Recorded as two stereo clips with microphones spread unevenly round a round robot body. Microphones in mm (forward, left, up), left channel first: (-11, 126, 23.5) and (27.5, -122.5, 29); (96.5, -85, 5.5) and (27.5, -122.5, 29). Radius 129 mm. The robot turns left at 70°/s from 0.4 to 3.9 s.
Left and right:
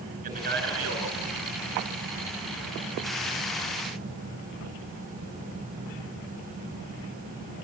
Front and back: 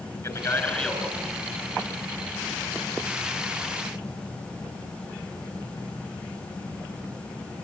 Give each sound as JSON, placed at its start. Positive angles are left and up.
{"t": 0.2, "sound": "a man speaking", "azimuth_deg": -20, "distance_m": 7.0}